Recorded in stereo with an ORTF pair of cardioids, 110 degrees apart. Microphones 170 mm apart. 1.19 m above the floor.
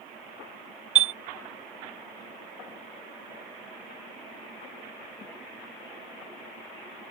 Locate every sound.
0.9 s a chime: 40° right